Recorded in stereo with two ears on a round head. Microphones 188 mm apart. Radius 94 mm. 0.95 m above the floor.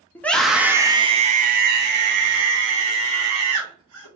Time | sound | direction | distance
0.1 | a scream | 10° left (ahead or behind) | 1.0 m